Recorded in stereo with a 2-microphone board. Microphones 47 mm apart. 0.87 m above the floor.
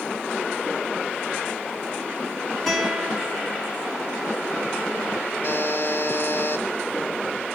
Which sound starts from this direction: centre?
A guitar, at 2.7 s.